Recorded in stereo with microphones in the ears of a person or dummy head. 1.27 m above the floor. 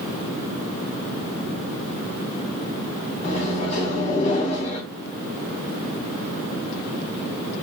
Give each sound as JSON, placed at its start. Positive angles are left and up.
{"t": 3.2, "sound": "a microwave", "side_deg": 40, "distance_m": 0.8}